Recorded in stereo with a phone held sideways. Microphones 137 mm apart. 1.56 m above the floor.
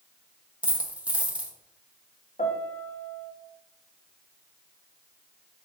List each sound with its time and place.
0.6 s a dropped coin: 10° right (ahead or behind), 0.8 m
2.4 s a piano: 50° left (ahead or behind), 0.9 m